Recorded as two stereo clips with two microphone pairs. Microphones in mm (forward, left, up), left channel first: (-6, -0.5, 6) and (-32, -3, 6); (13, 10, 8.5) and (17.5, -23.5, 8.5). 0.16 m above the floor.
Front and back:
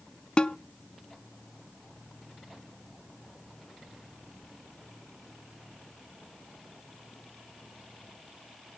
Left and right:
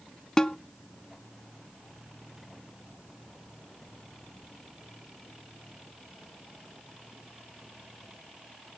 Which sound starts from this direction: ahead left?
A snare drum, at 0.4 s.